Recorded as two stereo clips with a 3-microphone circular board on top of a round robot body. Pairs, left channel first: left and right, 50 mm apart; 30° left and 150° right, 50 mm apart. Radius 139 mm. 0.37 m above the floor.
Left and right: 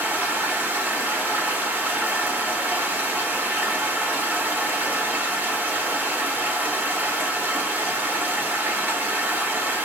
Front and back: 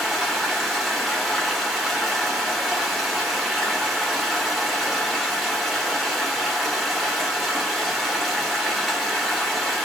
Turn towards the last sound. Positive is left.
turn(degrees=-60)